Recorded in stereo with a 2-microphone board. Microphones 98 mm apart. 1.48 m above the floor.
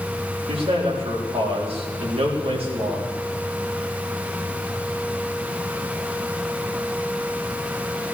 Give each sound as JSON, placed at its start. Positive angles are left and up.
{"t": 0.5, "sound": "a man speaking", "side_deg": -80, "distance_m": 4.0}